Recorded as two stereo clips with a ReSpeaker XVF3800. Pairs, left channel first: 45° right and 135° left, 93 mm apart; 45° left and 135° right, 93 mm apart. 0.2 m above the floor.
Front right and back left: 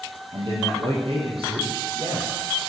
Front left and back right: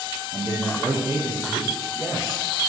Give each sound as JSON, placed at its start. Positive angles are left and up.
{"t": 0.3, "sound": "a man speaking", "azimuth_deg": 165, "distance_m": 5.5}